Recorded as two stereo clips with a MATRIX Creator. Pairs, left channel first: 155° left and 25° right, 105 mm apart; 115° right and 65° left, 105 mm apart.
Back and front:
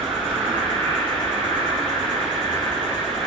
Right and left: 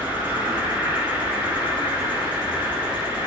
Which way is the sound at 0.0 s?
130° left.